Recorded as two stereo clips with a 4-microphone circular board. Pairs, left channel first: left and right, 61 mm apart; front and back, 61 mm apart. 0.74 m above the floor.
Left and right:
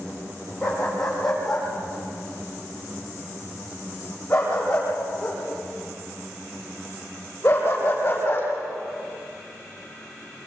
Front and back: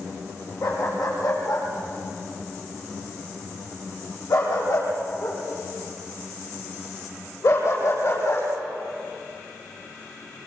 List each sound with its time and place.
0.6 s a dog barking: 5° left, 9 m; by 8.5 s 35° left, 8 m